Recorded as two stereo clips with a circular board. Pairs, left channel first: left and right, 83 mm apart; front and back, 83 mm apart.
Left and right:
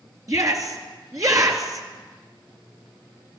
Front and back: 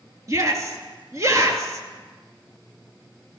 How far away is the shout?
About 3 m.